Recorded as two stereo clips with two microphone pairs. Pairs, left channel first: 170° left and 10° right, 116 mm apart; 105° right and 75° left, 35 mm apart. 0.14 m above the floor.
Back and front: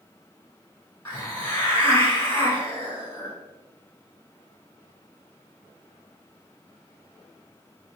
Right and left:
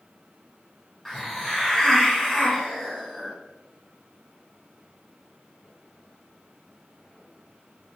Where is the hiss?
165° right, 1.2 m.